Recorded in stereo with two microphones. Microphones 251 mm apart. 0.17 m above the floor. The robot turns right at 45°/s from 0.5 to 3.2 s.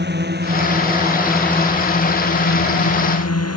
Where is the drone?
45° right (ahead or behind); by 3.6 s 85° left.